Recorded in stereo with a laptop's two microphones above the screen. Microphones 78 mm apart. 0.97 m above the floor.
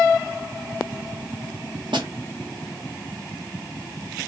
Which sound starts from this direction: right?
A snare drum, at 1.9 s.